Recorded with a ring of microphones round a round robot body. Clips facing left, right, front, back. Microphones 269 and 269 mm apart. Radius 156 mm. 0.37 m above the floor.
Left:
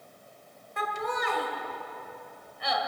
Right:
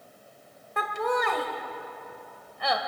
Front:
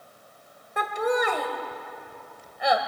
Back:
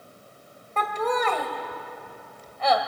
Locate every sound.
0.8 s laughter: 75° right, 1.8 m